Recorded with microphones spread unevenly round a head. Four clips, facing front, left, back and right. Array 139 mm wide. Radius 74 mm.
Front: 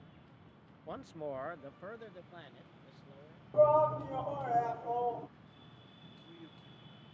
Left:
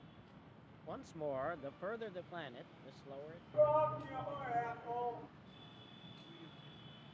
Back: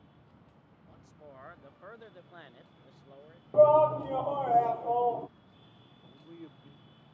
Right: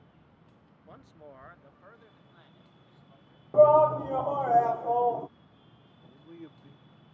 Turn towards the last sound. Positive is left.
turn(degrees=-125)